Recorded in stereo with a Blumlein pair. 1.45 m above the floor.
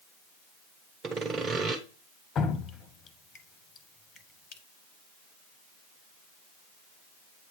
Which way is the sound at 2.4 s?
25° left.